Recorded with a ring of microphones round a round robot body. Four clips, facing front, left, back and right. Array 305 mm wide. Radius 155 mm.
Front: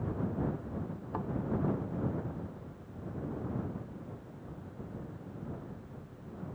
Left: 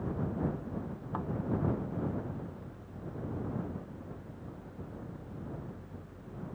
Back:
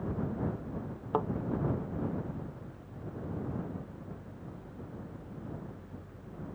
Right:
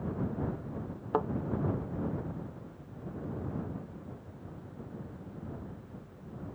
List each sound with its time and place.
1.1 s a thud: 125° right